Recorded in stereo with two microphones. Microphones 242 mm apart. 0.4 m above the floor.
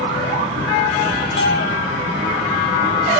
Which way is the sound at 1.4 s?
50° left (ahead or behind).